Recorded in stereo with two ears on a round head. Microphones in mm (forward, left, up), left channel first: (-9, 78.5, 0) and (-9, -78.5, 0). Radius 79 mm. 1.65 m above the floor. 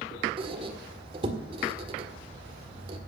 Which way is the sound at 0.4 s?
30° right (ahead or behind).